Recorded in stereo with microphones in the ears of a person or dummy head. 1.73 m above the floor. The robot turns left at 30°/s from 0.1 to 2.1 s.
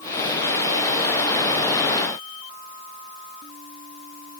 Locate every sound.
Only background noise.